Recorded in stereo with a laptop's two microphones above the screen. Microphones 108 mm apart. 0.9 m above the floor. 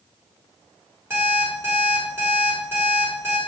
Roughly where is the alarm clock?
Right.